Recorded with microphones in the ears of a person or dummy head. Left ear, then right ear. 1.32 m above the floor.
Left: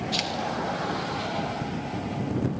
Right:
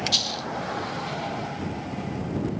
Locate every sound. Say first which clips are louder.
0.1 s a dropped coin: right 2 dB; 40° right (ahead or behind)